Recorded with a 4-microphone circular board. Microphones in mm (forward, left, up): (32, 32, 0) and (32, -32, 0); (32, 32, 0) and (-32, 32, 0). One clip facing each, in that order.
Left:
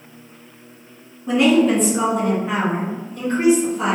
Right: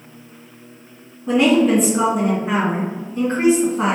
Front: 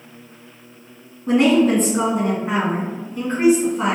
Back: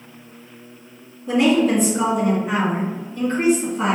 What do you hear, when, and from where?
1.3 s a woman speaking: straight ahead, 1.9 m; by 4.0 s 90° right, 1.7 m